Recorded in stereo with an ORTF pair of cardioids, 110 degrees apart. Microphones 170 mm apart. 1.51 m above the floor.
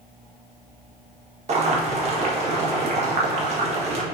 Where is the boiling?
40° right, 1.5 m.